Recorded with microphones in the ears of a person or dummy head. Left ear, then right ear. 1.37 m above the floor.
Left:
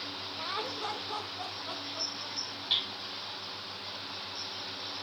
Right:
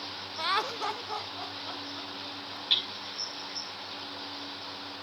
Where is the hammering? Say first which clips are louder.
Right 3 dB; 15° right (ahead or behind), 3 m.